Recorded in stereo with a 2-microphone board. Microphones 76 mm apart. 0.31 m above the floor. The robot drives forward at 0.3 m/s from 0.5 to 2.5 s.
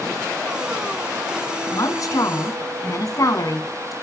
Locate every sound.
1.7 s a woman speaking: 50° left (ahead or behind), 3 m